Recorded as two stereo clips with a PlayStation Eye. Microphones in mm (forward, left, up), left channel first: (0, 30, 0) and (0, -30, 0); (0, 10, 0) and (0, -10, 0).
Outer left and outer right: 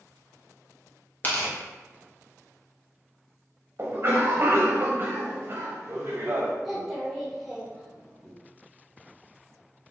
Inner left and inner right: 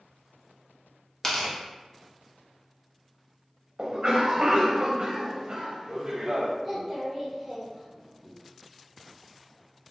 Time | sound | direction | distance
1.2 | tearing paper | 30° left (ahead or behind) | 0.7 m
3.8 | a cough | 45° right (ahead or behind) | 0.8 m
6.6 | a child speaking | 5° right (ahead or behind) | 0.6 m